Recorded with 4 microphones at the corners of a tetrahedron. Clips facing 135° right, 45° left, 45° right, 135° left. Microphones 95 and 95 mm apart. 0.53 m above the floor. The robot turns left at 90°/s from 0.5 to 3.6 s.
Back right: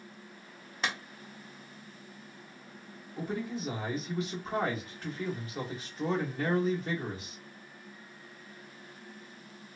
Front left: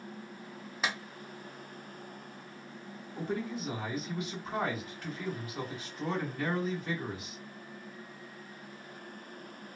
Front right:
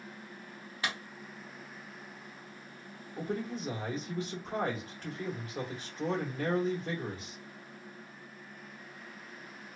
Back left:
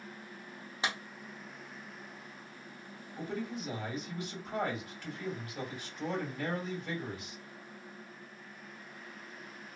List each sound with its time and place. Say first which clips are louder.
0.8 s a clap: even, back left 1 dB; 130° left, 0.5 m; by 1.0 s 115° left, 0.5 m
3.2 s a man speaking: even, front right 2 dB; 50° right, 1.3 m; by 7.4 s 90° right, 1.3 m